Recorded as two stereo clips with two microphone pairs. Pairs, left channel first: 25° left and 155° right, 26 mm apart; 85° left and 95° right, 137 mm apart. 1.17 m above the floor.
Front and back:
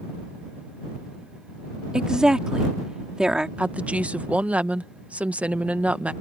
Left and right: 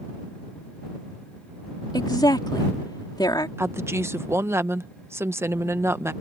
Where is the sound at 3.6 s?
160° right.